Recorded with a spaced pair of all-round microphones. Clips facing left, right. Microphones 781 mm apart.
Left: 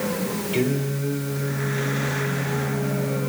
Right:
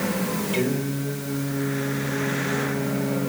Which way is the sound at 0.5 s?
55° left (ahead or behind).